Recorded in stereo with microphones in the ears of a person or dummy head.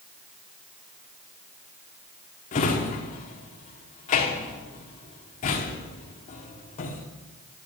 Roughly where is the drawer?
Left.